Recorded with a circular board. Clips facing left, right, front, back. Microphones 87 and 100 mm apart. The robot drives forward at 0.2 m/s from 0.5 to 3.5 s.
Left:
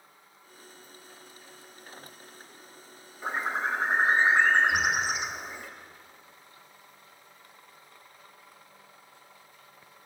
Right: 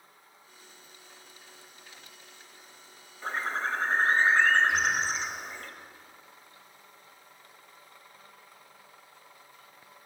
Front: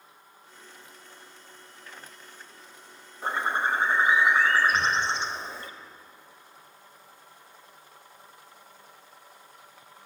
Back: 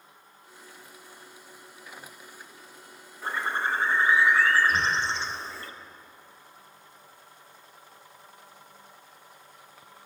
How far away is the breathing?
About 1.2 m.